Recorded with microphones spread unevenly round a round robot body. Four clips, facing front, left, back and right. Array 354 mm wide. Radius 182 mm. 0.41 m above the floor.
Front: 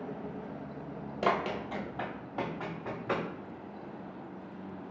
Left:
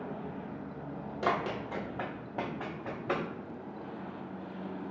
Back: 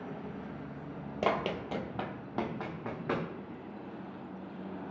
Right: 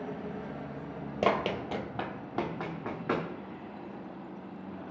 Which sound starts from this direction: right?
Running footsteps, at 1.2 s.